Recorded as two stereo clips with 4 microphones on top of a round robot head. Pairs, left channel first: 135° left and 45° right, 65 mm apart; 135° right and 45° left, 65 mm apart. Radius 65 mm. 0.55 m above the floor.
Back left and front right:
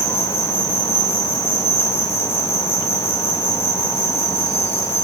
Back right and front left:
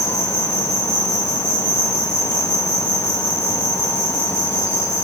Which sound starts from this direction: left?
An insect, at 0.0 s.